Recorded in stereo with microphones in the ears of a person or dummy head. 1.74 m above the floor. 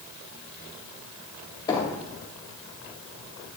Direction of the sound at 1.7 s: 20° left (ahead or behind).